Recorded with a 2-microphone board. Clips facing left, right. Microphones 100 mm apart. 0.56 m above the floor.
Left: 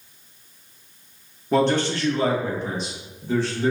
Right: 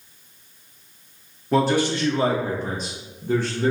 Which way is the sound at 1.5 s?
Centre (ahead or behind).